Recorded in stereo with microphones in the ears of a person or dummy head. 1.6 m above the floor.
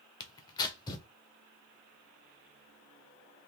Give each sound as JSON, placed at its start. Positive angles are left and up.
{"t": 0.2, "sound": "tearing paper", "side_deg": 25, "distance_m": 0.9}